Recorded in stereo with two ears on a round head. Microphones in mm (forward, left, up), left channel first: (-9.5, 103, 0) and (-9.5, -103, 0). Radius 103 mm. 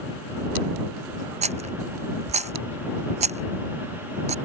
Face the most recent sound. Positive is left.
turn(degrees=-30)  # may be behind; listen again after turning